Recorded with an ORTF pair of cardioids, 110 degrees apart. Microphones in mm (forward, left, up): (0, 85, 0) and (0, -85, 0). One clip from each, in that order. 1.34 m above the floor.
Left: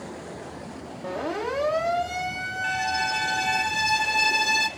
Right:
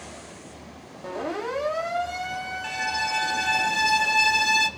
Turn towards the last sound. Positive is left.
turn(degrees=-5)